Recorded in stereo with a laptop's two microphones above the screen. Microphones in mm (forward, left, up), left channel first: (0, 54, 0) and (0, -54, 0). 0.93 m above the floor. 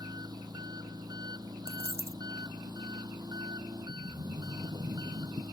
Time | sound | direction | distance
0.0 | an engine running | 40° right (ahead or behind) | ?
1.7 | a dropped coin | 65° left (ahead or behind) | ?
3.9 | a sliding door | 50° right (ahead or behind) | ?